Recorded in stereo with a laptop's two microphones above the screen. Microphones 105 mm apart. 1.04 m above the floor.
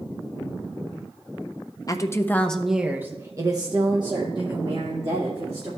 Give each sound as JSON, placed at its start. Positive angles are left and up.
{"t": 1.9, "sound": "a woman speaking", "side_deg": 35, "distance_m": 0.6}